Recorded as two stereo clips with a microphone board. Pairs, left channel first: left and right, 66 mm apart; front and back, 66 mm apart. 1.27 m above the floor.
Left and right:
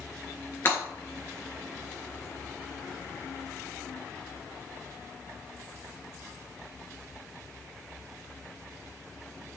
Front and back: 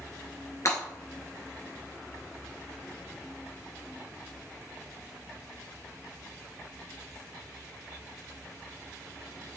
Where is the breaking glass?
40° left, 4 m.